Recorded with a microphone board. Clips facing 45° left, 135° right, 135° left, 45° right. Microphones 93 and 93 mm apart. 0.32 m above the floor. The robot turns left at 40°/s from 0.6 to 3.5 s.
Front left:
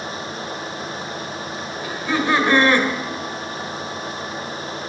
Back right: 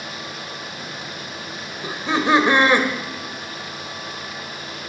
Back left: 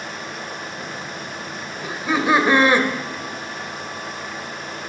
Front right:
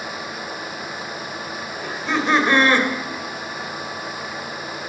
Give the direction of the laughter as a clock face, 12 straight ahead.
5 o'clock.